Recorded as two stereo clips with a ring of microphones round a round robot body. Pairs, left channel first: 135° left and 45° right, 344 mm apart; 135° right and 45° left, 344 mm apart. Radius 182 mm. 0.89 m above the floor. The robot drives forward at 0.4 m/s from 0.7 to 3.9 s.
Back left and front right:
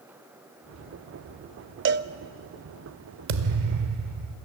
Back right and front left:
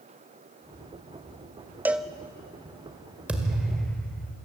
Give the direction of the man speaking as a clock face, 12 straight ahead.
I don't hear a man speaking.